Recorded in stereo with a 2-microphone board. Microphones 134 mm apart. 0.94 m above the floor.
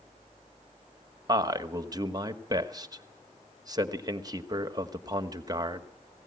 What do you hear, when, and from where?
1.3 s a man speaking: 30° right (ahead or behind), 1.2 m